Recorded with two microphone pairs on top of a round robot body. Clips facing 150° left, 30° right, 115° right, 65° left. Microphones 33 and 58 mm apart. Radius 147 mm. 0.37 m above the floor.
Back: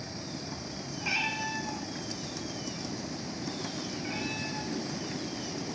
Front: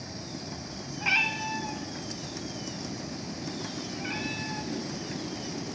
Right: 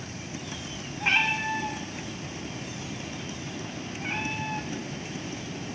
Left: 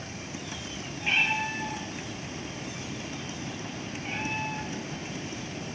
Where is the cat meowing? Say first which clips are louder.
Front 5 dB, right 2 dB; 90° right, 1.7 m.